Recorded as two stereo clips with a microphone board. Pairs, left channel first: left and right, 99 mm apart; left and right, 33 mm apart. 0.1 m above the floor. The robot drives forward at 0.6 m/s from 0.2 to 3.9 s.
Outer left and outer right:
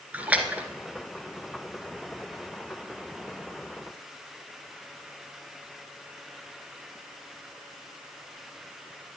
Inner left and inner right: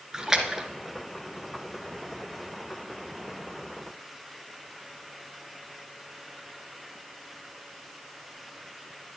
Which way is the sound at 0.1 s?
15° right (ahead or behind).